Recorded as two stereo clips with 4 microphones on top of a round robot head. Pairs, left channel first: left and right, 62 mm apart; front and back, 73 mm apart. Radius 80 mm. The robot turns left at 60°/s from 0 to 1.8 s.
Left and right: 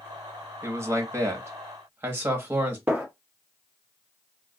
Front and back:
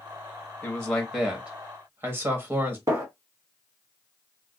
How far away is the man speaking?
About 1.0 m.